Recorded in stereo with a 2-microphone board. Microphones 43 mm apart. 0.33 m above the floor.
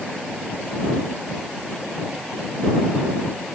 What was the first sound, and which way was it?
Only background noise.